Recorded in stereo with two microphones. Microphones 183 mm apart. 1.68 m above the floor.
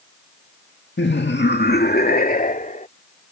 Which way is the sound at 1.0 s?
75° left (ahead or behind).